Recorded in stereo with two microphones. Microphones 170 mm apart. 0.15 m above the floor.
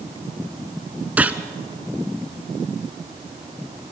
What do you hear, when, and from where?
1.2 s a gunshot: 10° right (ahead or behind), 0.9 m